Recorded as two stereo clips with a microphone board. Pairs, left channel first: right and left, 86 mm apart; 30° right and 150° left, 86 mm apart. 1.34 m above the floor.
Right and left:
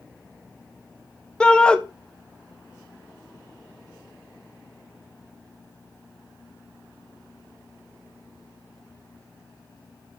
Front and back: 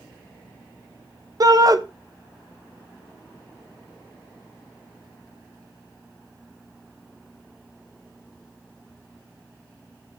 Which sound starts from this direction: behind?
A shout, at 1.4 s.